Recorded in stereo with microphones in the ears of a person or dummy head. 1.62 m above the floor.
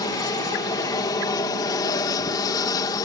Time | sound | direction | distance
0.0 | an aircraft | 15° left (ahead or behind) | ?